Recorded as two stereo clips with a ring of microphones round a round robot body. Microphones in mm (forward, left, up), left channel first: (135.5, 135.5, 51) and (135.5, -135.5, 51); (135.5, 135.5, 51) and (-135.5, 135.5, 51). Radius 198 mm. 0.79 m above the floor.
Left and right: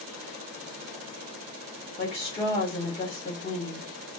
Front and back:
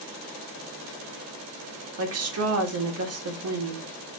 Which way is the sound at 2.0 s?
160° left.